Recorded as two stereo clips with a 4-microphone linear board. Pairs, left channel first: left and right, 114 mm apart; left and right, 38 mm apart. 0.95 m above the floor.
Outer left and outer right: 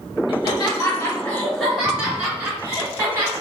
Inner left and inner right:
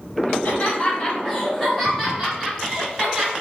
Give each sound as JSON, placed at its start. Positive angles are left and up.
{"t": 0.3, "sound": "laughter", "side_deg": 45, "distance_m": 1.2}